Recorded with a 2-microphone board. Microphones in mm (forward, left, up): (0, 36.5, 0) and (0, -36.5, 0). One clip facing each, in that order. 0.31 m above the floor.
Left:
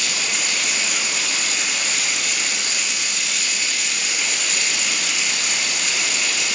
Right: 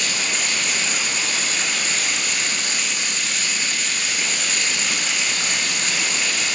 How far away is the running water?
About 1.5 m.